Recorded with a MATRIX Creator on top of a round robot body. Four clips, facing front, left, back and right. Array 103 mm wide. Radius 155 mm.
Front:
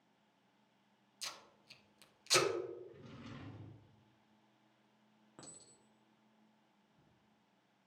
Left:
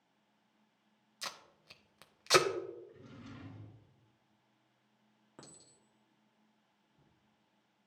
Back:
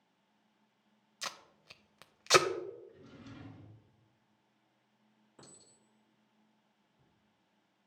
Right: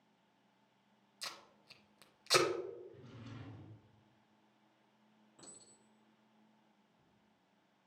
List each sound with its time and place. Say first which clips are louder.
1.2 s tape being pulled: left 4 dB, back 8 dB; 155° left, 0.6 m
2.9 s a drawer: left 2 dB, even; 10° left, 3 m
5.4 s a clink: left 4 dB, front 1 dB; 60° left, 1.4 m